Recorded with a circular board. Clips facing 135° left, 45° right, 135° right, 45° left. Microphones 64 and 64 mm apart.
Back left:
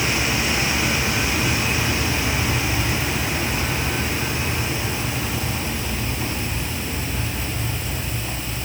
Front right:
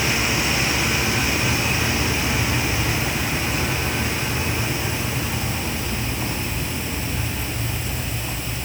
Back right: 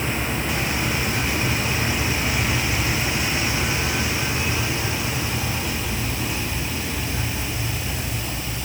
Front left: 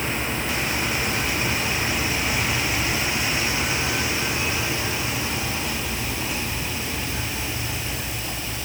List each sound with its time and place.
Only background noise.